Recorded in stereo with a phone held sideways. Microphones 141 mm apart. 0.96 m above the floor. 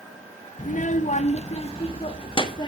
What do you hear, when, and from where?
0.6 s a child speaking: 65° left (ahead or behind), 0.7 m; by 2.7 s 35° left (ahead or behind), 1.5 m